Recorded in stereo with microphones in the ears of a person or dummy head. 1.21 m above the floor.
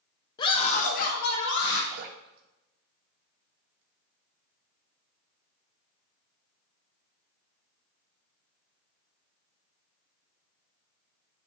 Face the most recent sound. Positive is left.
turn(degrees=-50)  # may be behind; listen again after turning